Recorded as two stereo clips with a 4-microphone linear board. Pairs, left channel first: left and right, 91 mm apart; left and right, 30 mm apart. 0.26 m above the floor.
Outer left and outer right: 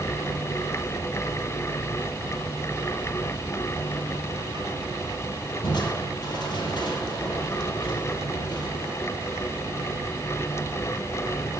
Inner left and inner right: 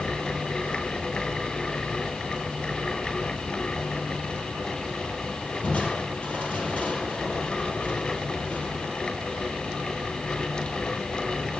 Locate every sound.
5.6 s crushing: 55° left (ahead or behind), 4 m